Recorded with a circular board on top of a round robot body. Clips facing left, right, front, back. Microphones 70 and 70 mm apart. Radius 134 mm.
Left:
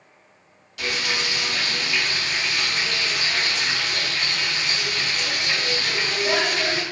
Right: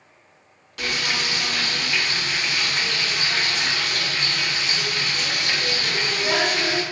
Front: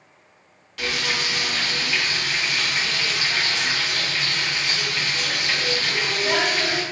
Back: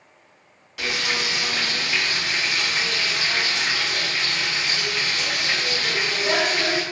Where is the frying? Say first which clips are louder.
Even, even; 105° right, 2.0 m.